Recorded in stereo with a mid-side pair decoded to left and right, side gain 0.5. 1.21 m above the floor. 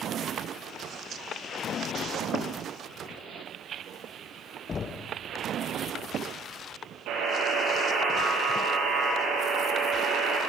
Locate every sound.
4.7 s knocking: 40° left, 0.8 m
7.1 s a buzzer: 70° right, 8 m